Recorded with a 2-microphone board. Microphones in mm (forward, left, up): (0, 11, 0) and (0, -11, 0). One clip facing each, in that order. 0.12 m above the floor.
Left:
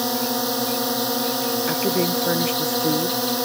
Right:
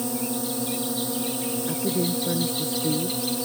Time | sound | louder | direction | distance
0.0 | a drone | left 5 dB | 60° left (ahead or behind) | ?
1.7 | a woman speaking | left 3 dB | 60° left (ahead or behind) | ?